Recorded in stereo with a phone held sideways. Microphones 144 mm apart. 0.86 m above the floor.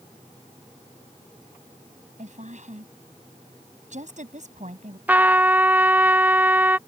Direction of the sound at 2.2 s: 55° right (ahead or behind).